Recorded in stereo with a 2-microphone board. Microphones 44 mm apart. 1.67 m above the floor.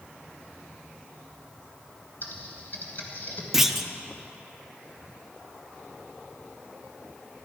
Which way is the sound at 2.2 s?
45° left (ahead or behind).